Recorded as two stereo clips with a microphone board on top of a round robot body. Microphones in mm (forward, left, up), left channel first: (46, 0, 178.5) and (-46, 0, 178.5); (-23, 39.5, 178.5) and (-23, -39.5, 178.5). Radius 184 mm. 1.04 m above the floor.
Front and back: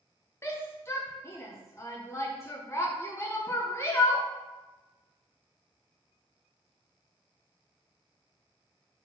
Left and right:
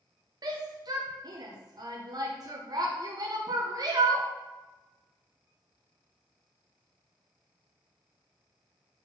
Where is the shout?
60° right, 1.0 m.